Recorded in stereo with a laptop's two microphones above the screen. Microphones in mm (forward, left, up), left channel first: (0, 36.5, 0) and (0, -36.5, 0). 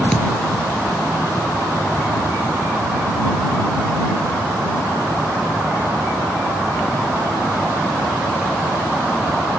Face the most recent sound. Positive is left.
turn(degrees=10)  # may be behind; listen again after turning